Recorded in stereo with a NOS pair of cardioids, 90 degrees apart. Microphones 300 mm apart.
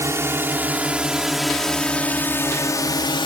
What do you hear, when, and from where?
0.0 s a drone: 10° right; by 3.3 s 15° left